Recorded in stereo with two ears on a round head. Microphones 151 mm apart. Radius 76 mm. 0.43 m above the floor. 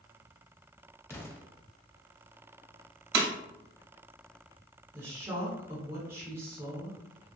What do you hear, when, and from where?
1.1 s an explosion: 15° left (ahead or behind), 0.5 m
3.1 s breaking glass: 60° right (ahead or behind), 0.6 m
4.9 s a woman speaking: 15° right (ahead or behind), 1.0 m